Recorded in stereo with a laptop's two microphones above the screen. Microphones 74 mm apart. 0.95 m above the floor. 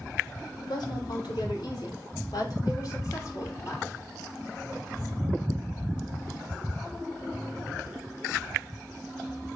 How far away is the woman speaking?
About 3 m.